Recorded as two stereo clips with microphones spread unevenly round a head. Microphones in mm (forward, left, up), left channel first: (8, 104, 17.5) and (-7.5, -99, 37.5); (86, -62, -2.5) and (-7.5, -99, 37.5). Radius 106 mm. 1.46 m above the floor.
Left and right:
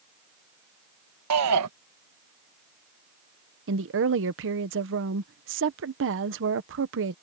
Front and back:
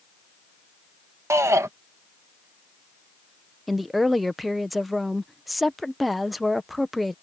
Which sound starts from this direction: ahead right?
A woman speaking, at 3.7 s.